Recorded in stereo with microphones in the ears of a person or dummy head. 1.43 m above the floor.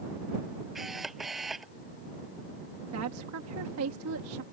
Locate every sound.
0.8 s a camera shutter: centre (ahead or behind)
2.9 s a woman speaking: 85° right